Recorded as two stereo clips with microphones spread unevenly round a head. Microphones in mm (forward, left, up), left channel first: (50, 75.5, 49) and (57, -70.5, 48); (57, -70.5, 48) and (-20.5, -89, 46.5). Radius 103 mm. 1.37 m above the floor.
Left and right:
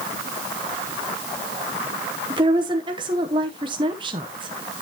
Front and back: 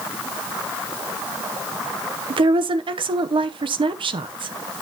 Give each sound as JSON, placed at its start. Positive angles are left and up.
{"t": 2.3, "sound": "a woman speaking", "azimuth_deg": -150, "distance_m": 0.8}